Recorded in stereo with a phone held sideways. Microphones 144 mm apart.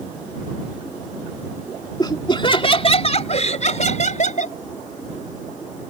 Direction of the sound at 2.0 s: 30° left (ahead or behind).